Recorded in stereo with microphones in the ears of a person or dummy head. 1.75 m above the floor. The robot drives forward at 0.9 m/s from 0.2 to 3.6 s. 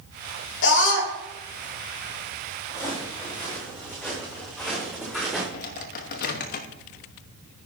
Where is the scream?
60° left (ahead or behind), 2 m; by 1.1 s 70° left (ahead or behind), 2.0 m.